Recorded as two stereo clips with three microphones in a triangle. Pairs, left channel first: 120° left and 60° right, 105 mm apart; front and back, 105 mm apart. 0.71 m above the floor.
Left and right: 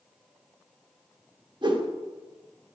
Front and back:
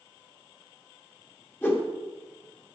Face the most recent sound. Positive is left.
turn(degrees=-60)